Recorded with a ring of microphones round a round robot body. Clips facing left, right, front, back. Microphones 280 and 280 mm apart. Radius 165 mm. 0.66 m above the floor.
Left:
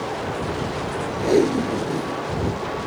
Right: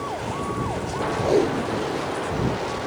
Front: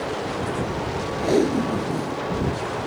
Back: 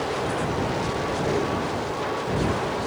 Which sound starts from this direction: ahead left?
Tape being pulled, at 1.2 s.